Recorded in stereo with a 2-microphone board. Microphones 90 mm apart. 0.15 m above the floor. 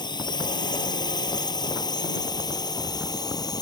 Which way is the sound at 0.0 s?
55° left (ahead or behind).